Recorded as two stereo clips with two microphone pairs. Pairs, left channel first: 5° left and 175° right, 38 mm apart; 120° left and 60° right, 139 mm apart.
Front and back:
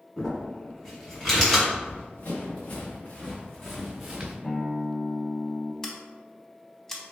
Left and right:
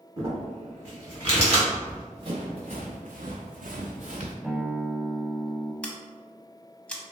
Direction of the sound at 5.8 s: 65° left.